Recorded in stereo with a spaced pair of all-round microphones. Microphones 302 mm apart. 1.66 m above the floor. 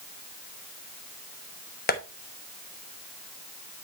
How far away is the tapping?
About 1.1 m.